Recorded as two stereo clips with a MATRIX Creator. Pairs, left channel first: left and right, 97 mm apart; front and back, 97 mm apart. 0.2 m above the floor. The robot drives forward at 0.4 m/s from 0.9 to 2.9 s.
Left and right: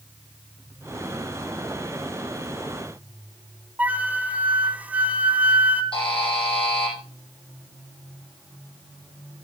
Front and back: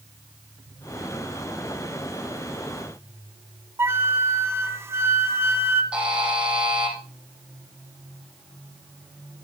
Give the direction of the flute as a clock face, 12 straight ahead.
5 o'clock.